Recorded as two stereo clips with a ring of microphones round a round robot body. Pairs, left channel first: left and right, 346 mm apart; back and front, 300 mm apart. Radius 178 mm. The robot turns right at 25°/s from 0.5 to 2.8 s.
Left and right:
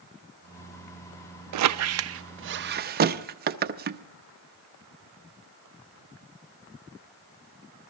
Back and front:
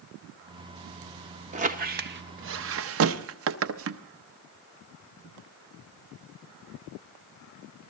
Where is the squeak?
65° right, 0.5 m; by 4.0 s 30° right, 0.5 m.